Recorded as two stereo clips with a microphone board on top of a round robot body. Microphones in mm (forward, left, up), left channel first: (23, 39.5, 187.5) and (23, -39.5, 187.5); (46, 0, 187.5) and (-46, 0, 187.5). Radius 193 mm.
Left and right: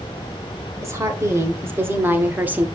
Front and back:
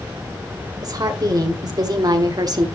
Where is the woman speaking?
140° right, 2.5 m; by 2.7 s 155° right, 1.6 m.